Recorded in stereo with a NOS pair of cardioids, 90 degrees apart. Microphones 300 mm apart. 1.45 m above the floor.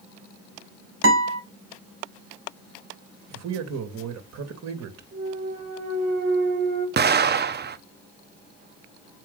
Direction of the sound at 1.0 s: 45° right.